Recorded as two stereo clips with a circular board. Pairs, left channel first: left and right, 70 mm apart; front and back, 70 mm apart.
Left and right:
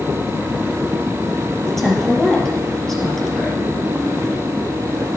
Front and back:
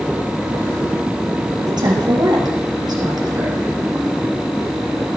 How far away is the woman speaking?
About 4 m.